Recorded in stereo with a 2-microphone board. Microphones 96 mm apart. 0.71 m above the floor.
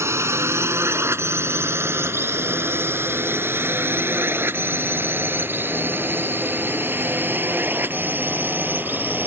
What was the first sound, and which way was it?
A drone, 25° right (ahead or behind).